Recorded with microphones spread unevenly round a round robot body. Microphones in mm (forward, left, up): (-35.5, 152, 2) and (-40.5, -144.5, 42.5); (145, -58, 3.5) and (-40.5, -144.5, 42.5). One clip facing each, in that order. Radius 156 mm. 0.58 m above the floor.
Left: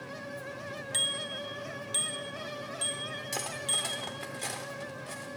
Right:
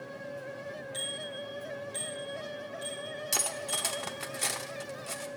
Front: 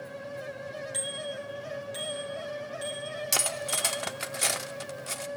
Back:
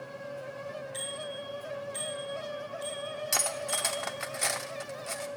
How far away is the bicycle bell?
About 3 m.